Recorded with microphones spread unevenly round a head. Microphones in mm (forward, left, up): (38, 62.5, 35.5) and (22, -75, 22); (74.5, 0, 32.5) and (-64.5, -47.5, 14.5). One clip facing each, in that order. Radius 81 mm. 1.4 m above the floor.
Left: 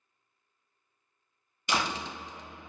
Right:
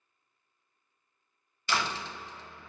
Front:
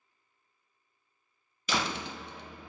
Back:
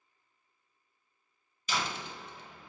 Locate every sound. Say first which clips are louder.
1.7 s a door slam: left 1 dB, front 3 dB; 15° left, 1.0 m